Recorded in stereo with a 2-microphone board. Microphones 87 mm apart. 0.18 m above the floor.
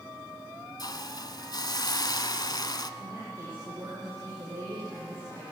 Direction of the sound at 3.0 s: 30° right (ahead or behind).